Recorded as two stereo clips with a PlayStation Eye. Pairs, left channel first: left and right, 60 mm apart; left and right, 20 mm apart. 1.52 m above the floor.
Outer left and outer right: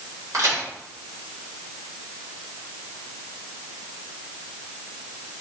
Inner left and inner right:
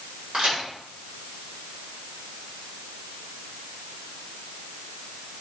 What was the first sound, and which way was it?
A crack, 75° right (ahead or behind).